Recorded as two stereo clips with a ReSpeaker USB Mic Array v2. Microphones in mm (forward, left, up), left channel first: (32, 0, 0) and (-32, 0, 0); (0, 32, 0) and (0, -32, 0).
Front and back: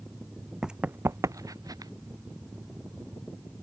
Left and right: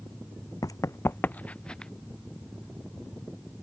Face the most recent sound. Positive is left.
turn(degrees=170)